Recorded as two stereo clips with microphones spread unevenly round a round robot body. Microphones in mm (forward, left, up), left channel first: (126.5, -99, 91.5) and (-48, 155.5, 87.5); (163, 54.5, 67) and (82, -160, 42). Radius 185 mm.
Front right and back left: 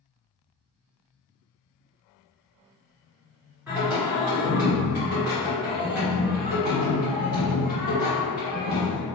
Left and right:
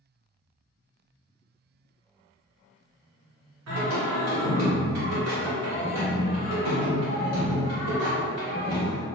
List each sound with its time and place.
3.7 s singing: 150° right, 1.2 m